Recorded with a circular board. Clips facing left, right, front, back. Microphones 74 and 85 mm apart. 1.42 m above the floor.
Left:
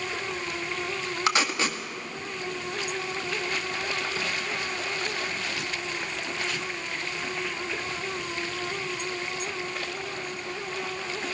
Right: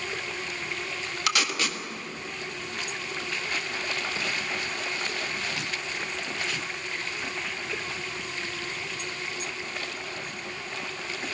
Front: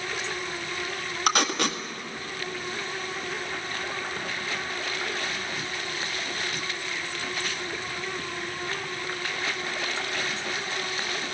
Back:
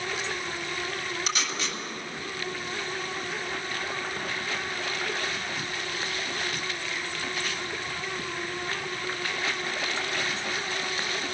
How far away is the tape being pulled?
About 1.7 m.